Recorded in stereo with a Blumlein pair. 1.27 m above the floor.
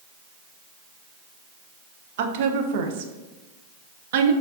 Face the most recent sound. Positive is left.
turn(degrees=-55)